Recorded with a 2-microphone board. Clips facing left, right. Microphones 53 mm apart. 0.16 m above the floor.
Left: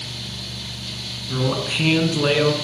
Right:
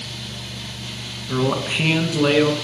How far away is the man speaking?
About 1.8 m.